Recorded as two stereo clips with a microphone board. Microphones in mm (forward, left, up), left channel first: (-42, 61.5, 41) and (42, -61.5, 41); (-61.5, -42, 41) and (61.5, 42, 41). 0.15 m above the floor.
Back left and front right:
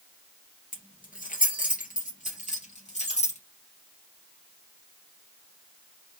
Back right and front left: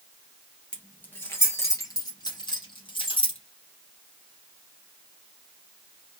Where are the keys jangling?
135° left, 2 m; by 3.4 s 165° left, 3 m.